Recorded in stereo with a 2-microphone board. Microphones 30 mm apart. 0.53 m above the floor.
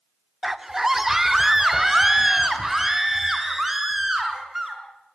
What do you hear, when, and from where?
0.4 s a scream: 15° right (ahead or behind), 1.1 m; by 4.8 s 10° right (ahead or behind), 6.5 m